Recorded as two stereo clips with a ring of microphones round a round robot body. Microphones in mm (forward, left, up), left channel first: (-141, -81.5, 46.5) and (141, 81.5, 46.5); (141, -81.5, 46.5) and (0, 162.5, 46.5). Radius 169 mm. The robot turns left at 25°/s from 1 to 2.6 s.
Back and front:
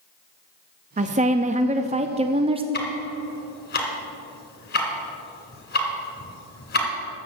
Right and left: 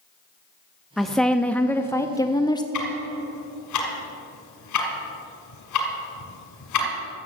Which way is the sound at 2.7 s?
90° right.